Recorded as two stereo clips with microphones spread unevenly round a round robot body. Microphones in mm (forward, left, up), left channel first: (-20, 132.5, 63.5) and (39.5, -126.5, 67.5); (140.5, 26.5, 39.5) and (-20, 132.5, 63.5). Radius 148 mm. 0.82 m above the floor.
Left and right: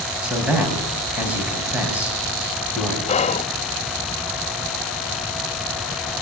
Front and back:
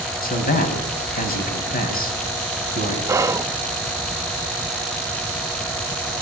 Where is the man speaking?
10° left, 5.5 m.